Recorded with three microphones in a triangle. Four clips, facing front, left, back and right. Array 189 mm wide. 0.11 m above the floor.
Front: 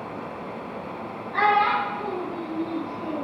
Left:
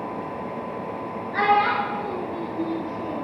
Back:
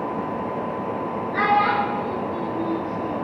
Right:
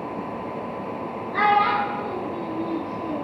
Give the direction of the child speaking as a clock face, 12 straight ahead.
2 o'clock.